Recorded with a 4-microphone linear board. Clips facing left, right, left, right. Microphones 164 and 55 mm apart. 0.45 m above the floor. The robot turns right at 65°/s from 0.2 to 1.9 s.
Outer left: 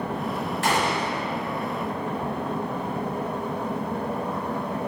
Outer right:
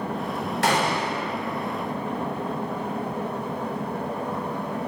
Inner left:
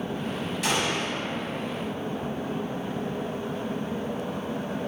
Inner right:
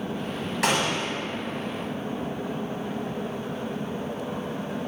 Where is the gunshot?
75° right, 0.7 m; by 1.2 s 35° right, 0.7 m.